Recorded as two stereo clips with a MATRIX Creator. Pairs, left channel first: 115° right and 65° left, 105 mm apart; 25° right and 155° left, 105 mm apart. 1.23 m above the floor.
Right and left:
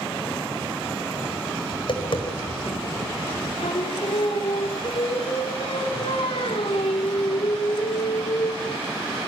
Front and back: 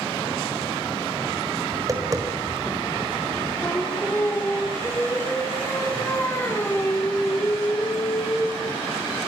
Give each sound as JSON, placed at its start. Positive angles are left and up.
{"t": 1.7, "sound": "tapping", "azimuth_deg": -145, "distance_m": 4.5}
{"t": 3.6, "sound": "singing", "azimuth_deg": -90, "distance_m": 3.5}